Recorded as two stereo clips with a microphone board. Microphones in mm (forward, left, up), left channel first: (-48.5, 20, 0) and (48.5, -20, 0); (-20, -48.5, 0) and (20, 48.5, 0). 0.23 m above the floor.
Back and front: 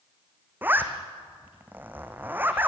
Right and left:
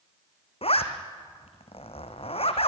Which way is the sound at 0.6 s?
95° right.